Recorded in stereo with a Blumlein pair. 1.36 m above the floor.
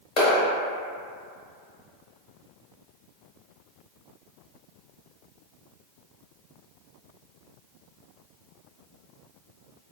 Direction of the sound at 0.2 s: 35° left.